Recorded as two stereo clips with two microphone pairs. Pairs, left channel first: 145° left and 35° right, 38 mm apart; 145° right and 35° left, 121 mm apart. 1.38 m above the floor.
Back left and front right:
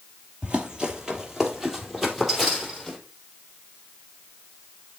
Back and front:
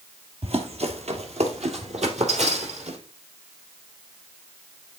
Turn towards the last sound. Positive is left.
turn(degrees=55)